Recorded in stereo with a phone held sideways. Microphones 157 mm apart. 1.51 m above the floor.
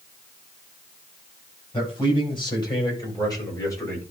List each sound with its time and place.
1.7 s a man speaking: 35° left (ahead or behind), 7 m; by 4.0 s 15° left (ahead or behind), 6.5 m